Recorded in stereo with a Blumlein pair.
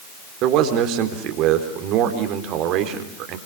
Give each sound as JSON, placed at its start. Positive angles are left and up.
{"t": 0.4, "sound": "a man speaking", "azimuth_deg": -40, "distance_m": 4.0}